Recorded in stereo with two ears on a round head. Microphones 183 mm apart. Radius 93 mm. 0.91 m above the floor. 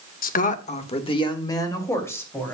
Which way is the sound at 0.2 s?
45° left (ahead or behind).